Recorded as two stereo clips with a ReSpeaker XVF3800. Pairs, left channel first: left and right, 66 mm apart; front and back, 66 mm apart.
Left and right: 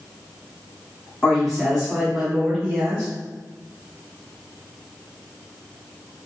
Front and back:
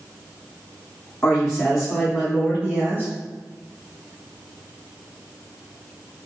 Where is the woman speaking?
40° left, 1.6 m; by 3.1 s 165° right, 1.9 m.